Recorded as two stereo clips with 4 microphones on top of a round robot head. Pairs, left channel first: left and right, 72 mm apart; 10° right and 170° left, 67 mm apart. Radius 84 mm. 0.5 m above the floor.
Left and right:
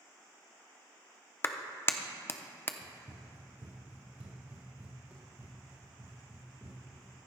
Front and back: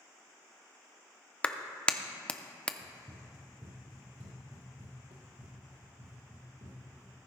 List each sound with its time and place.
1.4 s a clap: 55° left, 0.7 m
2.8 s running footsteps: 140° right, 2 m; by 7.1 s 165° right, 4 m